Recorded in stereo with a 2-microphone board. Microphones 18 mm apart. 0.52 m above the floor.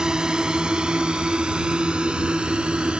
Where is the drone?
45° right (ahead or behind); by 3.0 s 70° right (ahead or behind).